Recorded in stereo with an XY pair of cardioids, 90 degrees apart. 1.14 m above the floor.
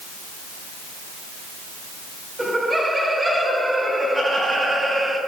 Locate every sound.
2.4 s laughter: 10° right, 6.5 m; by 5.2 s 30° right, 7 m